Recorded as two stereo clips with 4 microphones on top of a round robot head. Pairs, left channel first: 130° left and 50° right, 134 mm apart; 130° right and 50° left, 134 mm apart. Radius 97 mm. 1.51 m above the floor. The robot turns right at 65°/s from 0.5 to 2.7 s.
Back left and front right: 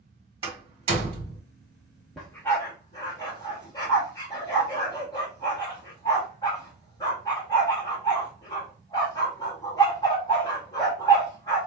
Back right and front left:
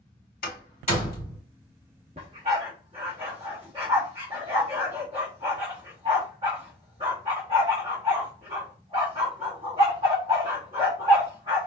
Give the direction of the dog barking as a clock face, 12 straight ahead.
11 o'clock.